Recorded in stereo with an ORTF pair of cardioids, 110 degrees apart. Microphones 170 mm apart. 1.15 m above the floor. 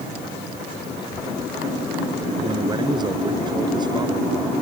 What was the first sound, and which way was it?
A child speaking, 25° left.